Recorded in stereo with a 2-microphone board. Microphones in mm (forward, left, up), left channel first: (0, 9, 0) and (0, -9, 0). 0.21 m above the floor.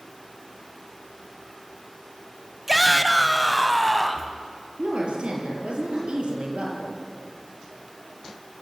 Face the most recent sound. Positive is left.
turn(degrees=-70)  # may be behind; listen again after turning